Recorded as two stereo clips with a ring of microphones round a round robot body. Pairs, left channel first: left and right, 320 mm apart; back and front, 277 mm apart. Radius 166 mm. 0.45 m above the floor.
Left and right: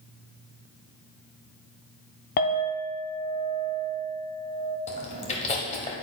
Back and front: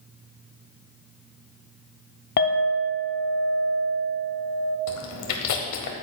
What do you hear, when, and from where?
2.4 s a clink: 140° left, 0.9 m
4.9 s chewing: 160° left, 1.2 m